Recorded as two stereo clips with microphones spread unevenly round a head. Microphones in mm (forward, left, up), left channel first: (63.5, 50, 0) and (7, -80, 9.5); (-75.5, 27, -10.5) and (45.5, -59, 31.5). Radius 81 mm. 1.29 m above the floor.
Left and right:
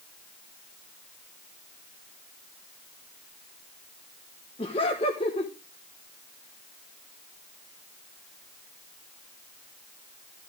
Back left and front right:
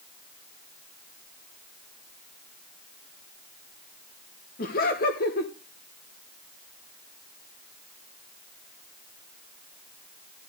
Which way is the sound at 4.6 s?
125° left.